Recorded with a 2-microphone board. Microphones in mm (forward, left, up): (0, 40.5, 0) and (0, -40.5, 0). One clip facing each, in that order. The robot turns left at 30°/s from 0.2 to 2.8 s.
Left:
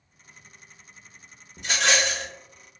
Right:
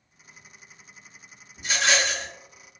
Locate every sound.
1.6 s a rattle: 80° left, 1.1 m